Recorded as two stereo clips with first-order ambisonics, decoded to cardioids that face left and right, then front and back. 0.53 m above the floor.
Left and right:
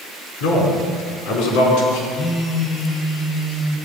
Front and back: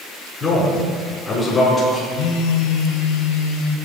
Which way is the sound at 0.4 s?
85° left.